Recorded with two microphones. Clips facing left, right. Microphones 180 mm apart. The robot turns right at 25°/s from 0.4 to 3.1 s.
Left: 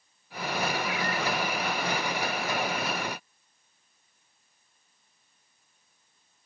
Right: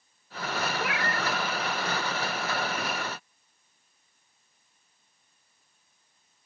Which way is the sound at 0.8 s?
70° right (ahead or behind).